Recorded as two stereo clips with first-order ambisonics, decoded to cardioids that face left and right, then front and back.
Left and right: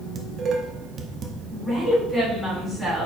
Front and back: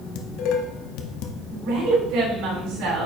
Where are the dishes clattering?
30° right, 0.8 m.